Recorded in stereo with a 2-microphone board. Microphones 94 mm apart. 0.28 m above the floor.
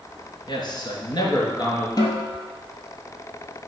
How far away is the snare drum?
About 3 m.